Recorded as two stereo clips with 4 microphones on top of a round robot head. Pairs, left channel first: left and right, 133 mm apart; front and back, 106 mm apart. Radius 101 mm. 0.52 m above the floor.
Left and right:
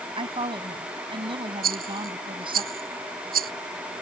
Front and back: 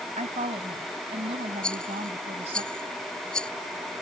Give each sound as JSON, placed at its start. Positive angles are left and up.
{"t": 0.2, "sound": "a woman speaking", "azimuth_deg": -140}
{"t": 1.6, "sound": "a rattle", "azimuth_deg": -85}